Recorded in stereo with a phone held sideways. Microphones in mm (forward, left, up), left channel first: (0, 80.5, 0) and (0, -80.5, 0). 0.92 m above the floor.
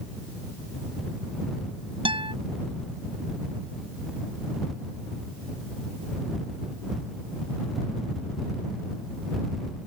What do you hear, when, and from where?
2.0 s a guitar: 30° right (ahead or behind)